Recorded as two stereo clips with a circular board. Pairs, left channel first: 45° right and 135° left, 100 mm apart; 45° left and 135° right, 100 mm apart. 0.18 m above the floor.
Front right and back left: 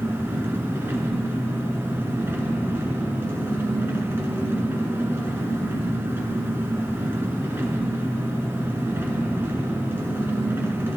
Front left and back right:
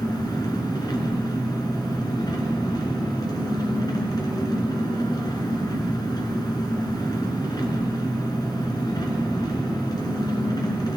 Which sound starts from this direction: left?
An engine running, at 0.0 s.